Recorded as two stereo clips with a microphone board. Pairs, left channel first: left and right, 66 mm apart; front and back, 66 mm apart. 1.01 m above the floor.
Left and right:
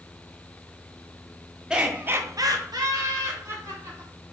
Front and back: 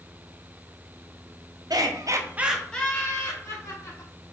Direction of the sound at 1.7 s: 170° right.